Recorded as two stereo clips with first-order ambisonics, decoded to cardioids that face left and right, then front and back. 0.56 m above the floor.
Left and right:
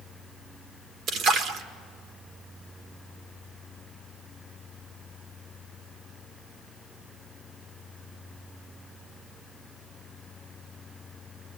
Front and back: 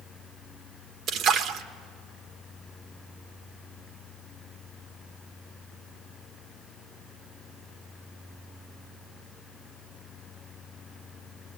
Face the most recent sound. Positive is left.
turn(degrees=-135)